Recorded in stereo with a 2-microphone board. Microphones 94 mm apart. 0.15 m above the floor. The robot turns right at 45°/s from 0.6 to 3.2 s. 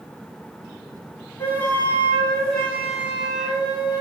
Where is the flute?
120° left, 0.9 m; by 4.0 s 160° right, 0.9 m.